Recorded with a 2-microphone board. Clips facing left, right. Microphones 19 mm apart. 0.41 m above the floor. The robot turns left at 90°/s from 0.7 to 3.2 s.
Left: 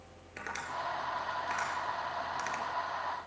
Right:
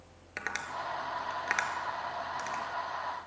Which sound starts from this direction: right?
Tapping, at 0.4 s.